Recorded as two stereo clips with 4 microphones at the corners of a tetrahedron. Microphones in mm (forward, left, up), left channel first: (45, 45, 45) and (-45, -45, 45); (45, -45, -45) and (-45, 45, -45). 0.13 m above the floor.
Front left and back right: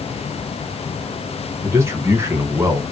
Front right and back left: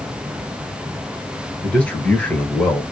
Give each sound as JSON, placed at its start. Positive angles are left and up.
{"t": 1.6, "sound": "a man speaking", "azimuth_deg": -105, "distance_m": 1.1}